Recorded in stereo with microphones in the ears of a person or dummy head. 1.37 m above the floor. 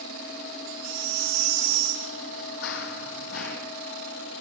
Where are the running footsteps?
65° left (ahead or behind), 3 m.